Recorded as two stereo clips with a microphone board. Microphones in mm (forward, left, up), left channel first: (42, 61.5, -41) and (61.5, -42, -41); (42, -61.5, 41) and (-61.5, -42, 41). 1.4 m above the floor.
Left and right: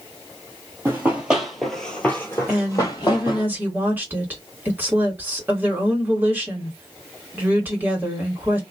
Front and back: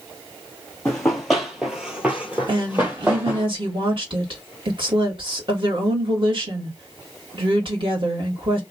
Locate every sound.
0.8 s running footsteps: 80° right, 1.4 m; by 3.5 s 110° left, 1.8 m
2.5 s a woman speaking: 150° right, 1.8 m